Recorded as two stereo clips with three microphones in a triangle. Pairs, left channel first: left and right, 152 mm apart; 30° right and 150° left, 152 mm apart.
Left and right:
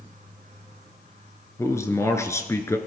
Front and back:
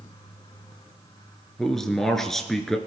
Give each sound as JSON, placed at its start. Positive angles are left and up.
{"t": 1.6, "sound": "a man speaking", "azimuth_deg": 55, "distance_m": 1.2}